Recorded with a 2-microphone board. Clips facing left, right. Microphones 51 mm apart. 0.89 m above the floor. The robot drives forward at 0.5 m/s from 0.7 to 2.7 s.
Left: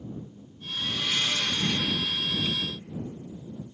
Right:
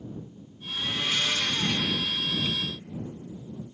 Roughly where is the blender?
Right.